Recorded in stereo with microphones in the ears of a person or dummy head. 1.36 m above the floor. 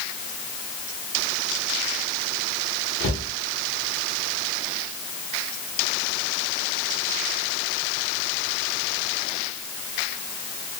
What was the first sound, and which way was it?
A cupboard door, 25° left (ahead or behind).